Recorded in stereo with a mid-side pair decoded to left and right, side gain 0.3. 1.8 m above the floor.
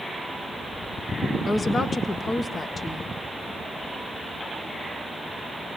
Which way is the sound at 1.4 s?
50° left.